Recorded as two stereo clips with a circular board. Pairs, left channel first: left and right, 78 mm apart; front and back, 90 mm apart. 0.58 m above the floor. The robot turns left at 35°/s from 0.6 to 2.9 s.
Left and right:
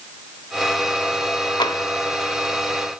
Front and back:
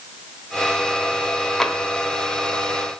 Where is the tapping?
85° left, 1.4 m; by 1.8 s 80° left, 1.4 m.